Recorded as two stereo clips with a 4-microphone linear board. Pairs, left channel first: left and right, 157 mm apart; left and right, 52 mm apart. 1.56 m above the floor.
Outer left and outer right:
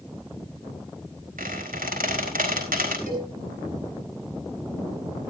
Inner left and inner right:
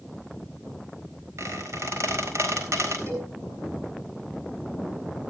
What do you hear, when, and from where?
1.4 s a squeak: 60° right (ahead or behind), 4.5 m
3.1 s a cowbell: 60° right (ahead or behind), 5.5 m